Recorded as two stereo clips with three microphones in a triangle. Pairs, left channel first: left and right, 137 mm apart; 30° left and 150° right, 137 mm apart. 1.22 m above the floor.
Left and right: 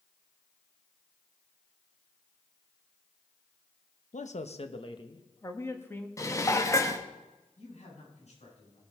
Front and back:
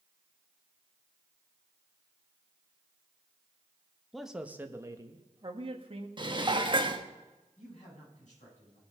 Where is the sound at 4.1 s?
120° left, 1.0 m; by 6.1 s 165° left, 1.7 m.